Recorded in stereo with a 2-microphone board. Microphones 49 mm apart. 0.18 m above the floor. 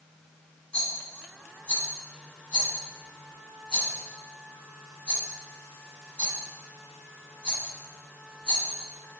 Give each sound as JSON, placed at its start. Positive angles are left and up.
{"t": 0.7, "sound": "a rattle", "side_deg": 20, "distance_m": 1.0}